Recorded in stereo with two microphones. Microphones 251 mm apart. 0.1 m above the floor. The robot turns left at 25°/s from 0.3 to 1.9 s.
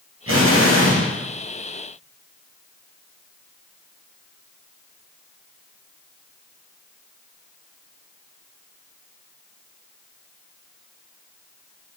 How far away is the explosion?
About 2.5 m.